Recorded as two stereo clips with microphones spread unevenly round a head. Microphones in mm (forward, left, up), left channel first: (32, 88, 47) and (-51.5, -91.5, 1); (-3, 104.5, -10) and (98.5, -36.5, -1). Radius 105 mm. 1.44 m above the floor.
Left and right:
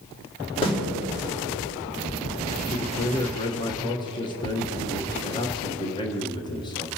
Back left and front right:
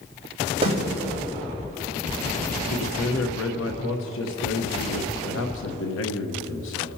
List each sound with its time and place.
0.6 s a snare drum: straight ahead, 4 m
2.7 s a man speaking: 130° left, 1.1 m